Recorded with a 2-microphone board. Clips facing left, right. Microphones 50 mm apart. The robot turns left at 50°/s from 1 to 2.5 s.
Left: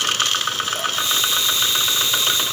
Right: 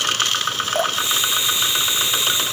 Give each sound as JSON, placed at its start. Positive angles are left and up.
{"t": 0.8, "sound": "dripping", "side_deg": -45, "distance_m": 0.8}